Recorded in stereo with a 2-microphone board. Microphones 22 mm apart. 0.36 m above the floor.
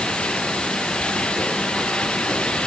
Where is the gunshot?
I don't hear a gunshot.